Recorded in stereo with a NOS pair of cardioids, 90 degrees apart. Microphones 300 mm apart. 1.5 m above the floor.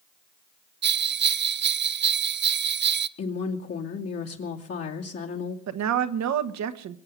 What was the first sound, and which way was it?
A bell, 40° right.